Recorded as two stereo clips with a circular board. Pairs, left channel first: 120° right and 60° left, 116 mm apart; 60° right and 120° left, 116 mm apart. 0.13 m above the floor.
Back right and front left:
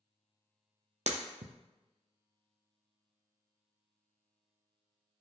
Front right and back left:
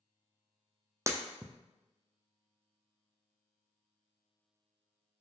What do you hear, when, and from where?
1.1 s breaking glass: 55° left, 0.6 m